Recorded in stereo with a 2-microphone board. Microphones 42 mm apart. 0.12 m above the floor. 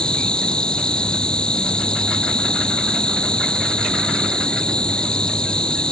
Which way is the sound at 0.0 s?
20° left (ahead or behind).